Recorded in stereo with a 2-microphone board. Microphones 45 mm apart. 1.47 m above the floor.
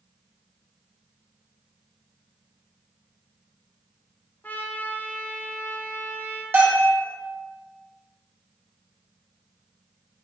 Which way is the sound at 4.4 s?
45° left (ahead or behind).